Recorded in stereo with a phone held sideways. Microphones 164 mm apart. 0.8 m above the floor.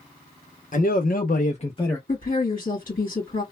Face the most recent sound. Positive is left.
turn(degrees=55)  # may be behind; listen again after turning